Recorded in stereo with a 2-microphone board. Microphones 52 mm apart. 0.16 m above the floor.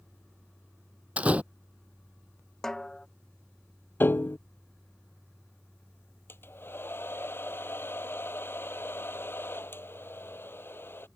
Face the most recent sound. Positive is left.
turn(degrees=50)  # may be behind; listen again after turning